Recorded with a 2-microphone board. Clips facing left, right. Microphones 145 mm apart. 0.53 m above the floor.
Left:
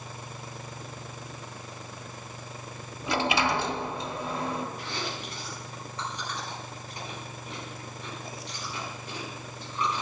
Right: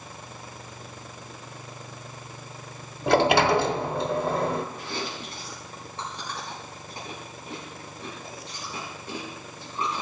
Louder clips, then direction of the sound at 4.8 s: Right 2 dB; 30° right (ahead or behind).